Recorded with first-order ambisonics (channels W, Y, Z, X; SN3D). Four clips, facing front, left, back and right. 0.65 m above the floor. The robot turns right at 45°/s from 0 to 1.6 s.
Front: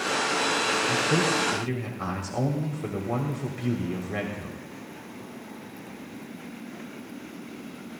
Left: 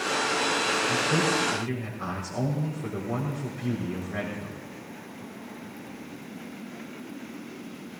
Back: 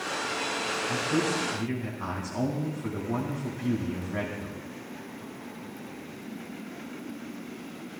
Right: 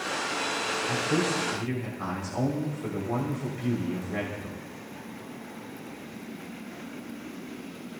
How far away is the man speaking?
About 3 m.